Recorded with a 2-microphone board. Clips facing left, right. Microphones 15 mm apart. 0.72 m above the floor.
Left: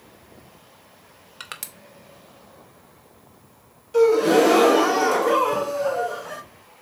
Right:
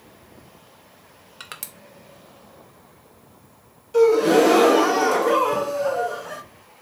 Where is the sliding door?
I don't hear a sliding door.